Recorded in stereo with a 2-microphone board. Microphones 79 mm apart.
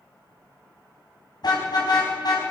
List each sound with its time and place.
1.4 s a car horn: 60° left (ahead or behind), 5.5 m